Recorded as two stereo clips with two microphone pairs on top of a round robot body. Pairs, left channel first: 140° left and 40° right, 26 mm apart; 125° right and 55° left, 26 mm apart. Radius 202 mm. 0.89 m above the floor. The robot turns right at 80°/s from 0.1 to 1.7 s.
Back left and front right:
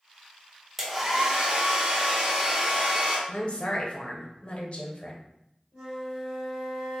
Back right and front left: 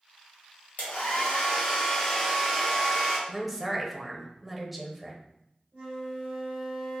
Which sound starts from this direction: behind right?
A hair dryer, at 0.8 s.